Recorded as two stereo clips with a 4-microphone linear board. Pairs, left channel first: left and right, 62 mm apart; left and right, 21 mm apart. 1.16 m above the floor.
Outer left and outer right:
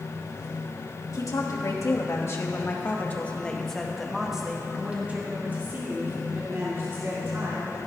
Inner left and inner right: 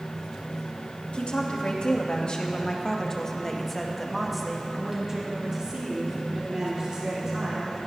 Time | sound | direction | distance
1.1 | a woman speaking | 65° left (ahead or behind) | 2.5 m